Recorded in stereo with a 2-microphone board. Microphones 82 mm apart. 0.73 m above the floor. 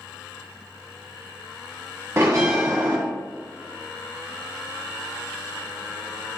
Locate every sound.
2.2 s a bell: 35° right (ahead or behind), 1.3 m